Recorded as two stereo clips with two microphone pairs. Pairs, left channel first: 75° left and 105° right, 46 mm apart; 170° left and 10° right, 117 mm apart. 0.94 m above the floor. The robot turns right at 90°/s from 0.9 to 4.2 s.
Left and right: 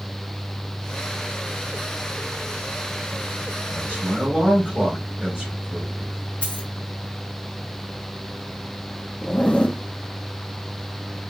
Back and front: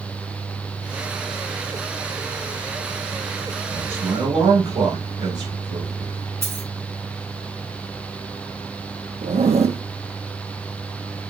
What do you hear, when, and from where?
3.7 s a man speaking: 70° right, 3 m; by 6.3 s 25° right, 3 m
6.4 s a dropped coin: 15° left, 2.5 m
9.2 s a zipper: 15° left, 0.6 m